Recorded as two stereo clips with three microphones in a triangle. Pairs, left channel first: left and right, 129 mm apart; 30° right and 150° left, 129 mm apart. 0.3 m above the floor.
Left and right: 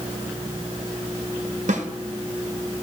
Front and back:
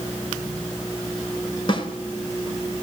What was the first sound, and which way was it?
A snare drum, 80° right.